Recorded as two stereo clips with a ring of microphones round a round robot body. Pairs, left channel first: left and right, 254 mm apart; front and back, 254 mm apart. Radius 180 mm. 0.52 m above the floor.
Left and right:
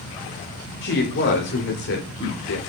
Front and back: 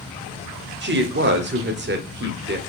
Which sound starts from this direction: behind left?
A woman speaking, at 0.8 s.